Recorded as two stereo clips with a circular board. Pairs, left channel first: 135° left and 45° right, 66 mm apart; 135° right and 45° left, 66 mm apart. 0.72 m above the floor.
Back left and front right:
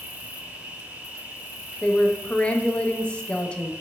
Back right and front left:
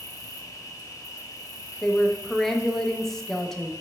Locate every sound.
0.0 s an insect: 115° right, 0.7 m
1.8 s a woman speaking: 155° left, 0.5 m